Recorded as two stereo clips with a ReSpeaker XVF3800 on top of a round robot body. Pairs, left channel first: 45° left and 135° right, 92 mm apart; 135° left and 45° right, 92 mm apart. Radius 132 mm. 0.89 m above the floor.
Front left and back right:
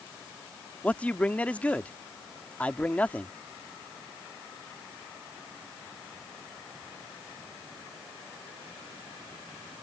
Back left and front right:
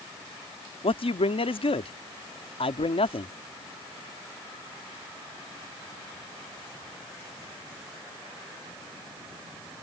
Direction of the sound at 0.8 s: 120° left.